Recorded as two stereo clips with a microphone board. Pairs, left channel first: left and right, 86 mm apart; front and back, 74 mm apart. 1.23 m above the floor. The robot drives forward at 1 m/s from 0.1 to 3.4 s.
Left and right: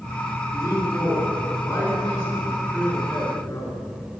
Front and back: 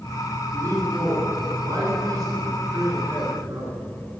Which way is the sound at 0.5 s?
155° left.